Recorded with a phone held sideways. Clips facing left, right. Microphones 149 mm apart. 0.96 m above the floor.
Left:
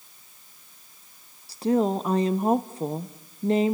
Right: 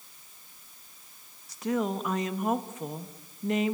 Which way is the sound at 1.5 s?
30° left (ahead or behind).